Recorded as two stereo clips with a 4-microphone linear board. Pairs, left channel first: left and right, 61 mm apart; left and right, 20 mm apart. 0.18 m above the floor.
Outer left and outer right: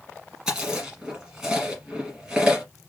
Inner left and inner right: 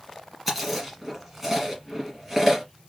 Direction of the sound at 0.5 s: 5° right (ahead or behind).